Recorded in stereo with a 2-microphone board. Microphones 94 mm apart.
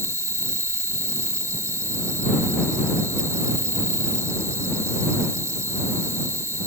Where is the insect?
30° right (ahead or behind).